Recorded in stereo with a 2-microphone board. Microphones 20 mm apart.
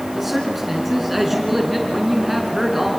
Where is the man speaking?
10° right (ahead or behind), 4.5 m.